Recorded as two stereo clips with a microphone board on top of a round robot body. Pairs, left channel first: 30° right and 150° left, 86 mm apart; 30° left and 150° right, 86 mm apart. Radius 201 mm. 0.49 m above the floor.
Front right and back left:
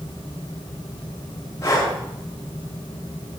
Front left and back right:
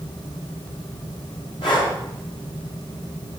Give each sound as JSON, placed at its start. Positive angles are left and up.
{"t": 1.6, "sound": "breathing", "azimuth_deg": 25, "distance_m": 6.0}